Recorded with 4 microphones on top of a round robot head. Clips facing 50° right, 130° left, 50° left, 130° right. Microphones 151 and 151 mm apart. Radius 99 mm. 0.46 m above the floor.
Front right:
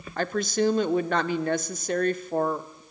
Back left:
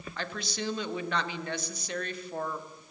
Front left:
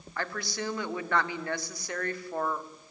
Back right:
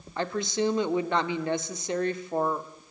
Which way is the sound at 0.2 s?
70° right.